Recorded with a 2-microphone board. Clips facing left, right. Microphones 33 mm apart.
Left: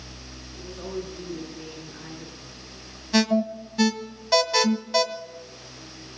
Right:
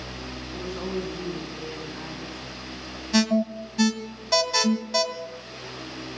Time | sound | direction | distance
0.5 | a woman speaking | 75° right (ahead or behind) | 7.5 m
3.1 | an alarm | 5° left (ahead or behind) | 1.3 m